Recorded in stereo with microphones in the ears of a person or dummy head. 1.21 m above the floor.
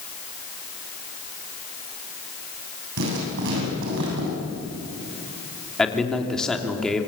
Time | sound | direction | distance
3.0 | writing | 65° right (ahead or behind) | 8.5 m
5.8 | a man speaking | centre (ahead or behind) | 3 m